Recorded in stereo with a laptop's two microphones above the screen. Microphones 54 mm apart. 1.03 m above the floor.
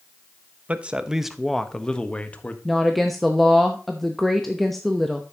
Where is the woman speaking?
Centre (ahead or behind), 0.9 m.